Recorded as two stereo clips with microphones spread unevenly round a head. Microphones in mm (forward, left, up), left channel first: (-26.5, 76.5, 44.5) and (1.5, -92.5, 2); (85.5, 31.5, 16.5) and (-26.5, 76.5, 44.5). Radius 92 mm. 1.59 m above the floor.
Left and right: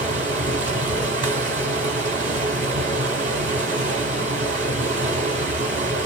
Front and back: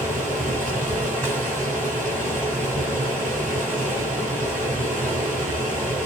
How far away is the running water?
About 3.5 m.